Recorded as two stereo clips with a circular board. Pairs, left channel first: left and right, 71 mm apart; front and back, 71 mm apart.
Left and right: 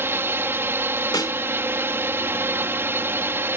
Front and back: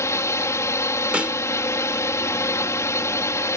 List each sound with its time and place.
0.0 s a drone: 40° right
1.1 s a snare drum: 105° left